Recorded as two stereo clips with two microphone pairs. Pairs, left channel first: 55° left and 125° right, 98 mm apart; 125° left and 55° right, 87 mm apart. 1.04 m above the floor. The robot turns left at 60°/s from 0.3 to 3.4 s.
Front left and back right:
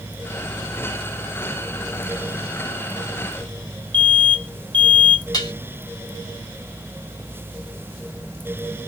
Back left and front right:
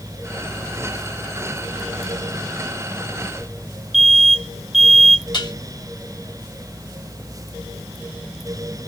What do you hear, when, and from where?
3.9 s an alarm: 145° right, 1.2 m
5.3 s dishes clattering: 100° left, 3 m